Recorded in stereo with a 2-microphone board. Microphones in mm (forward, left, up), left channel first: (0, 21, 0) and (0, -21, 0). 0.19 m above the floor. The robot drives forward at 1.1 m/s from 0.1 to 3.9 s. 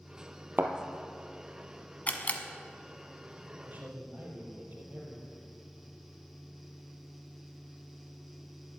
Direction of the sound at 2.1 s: 35° left (ahead or behind).